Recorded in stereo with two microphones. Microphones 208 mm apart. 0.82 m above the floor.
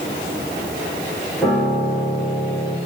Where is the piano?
5° left (ahead or behind), 6 m.